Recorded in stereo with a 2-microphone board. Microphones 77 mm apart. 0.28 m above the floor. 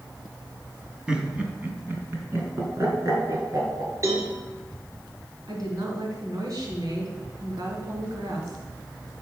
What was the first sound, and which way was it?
Laughter, 10° right (ahead or behind).